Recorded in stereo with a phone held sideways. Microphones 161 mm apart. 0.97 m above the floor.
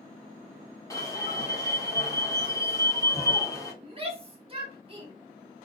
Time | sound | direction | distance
0.9 | an alarm | 20° left (ahead or behind) | 0.9 m
3.8 | a shout | 35° right (ahead or behind) | 1.1 m